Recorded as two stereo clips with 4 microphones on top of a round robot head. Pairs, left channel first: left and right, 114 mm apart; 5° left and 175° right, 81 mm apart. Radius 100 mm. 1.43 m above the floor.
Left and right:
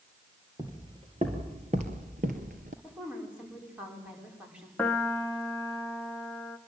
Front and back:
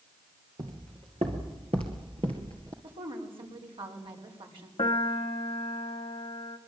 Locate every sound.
0.6 s footsteps: 155° right, 2 m; by 2.7 s 110° right, 1.9 m
2.8 s a woman speaking: 170° right, 5.5 m
4.8 s a piano: 15° left, 1.2 m